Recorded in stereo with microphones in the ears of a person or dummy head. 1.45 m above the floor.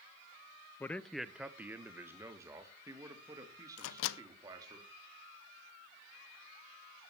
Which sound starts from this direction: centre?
A man speaking, at 0.8 s.